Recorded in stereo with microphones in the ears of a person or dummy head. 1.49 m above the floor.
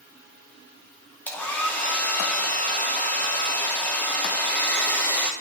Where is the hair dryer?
5° left (ahead or behind), 0.9 m.